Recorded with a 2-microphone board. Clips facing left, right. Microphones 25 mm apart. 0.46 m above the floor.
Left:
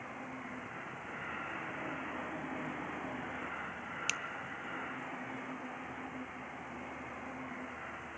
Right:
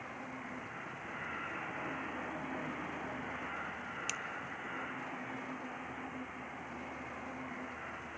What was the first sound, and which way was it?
A finger snap, 25° left (ahead or behind).